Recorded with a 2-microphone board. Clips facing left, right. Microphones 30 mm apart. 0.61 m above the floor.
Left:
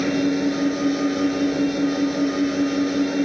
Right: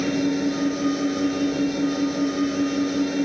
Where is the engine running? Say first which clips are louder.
Left 2 dB; 15° left (ahead or behind).